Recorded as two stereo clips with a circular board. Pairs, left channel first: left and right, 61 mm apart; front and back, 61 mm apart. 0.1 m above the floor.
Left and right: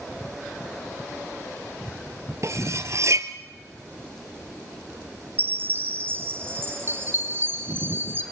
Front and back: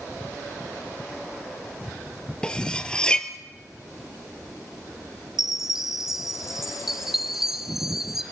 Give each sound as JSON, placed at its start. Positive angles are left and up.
{"t": 2.4, "sound": "cutlery clinking", "azimuth_deg": -75, "distance_m": 1.4}
{"t": 5.4, "sound": "a chime", "azimuth_deg": -100, "distance_m": 1.4}